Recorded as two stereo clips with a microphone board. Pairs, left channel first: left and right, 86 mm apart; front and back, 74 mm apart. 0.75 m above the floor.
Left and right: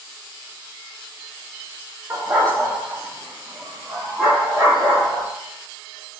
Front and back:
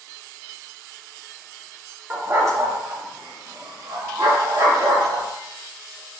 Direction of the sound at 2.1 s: 135° right.